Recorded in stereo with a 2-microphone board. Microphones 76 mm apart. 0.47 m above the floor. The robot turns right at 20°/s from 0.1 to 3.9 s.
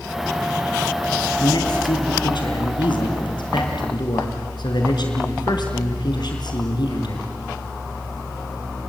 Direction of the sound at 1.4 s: 60° left.